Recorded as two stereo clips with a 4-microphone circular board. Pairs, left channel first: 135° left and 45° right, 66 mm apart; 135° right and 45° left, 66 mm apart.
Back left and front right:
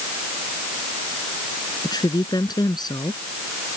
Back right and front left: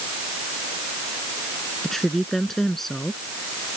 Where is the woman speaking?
140° left.